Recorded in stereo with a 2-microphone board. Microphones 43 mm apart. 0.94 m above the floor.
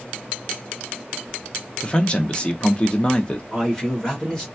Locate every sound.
1.8 s a man speaking: 25° left (ahead or behind), 0.8 m
3.5 s a man speaking: 15° left (ahead or behind), 2 m